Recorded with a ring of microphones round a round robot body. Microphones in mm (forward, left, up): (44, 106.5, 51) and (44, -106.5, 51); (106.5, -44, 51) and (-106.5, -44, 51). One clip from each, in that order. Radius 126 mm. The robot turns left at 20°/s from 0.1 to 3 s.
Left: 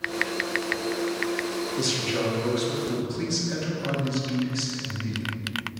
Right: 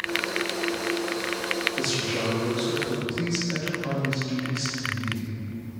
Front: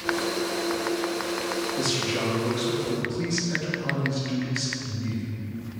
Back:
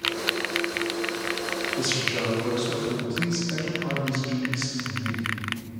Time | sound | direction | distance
1.8 | a man speaking | 100° left | 1.4 m